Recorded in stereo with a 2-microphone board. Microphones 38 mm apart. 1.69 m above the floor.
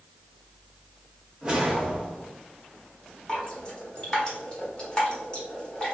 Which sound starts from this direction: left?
Dripping, at 3.3 s.